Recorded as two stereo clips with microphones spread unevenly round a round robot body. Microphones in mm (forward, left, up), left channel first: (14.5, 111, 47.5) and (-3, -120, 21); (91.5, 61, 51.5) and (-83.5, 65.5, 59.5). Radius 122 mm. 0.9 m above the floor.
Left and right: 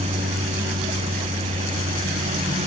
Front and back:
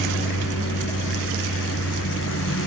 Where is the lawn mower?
30° right.